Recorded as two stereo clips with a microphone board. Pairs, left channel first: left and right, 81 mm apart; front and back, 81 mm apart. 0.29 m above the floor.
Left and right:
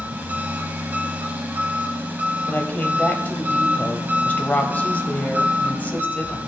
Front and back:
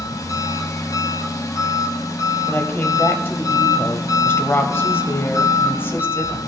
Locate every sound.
0.0 s an engine running: 25° right, 1.1 m
2.5 s a woman speaking: 35° left, 1.1 m